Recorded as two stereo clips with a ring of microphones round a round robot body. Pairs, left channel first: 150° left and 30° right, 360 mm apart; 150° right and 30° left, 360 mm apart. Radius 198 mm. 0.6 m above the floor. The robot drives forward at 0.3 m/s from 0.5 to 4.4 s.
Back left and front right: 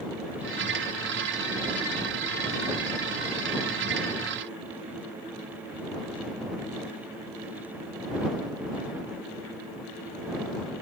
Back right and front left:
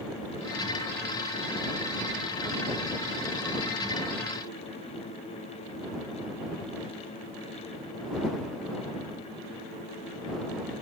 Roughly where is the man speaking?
I don't hear a man speaking.